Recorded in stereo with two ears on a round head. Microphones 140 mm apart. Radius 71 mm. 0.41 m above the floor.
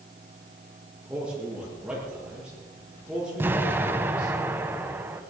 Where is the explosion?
15° right (ahead or behind), 1.5 m.